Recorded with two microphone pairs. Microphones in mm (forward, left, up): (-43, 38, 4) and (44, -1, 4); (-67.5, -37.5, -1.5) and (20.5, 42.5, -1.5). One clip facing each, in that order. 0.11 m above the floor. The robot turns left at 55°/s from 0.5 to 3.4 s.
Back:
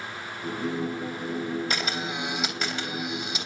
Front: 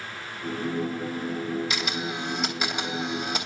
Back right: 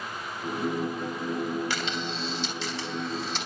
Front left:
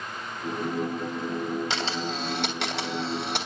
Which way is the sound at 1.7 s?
110° left.